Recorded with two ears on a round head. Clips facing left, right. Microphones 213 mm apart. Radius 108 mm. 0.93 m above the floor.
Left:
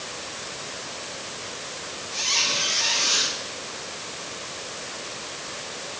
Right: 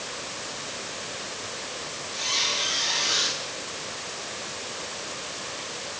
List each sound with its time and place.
2.1 s a squeak: 55° left (ahead or behind), 8 m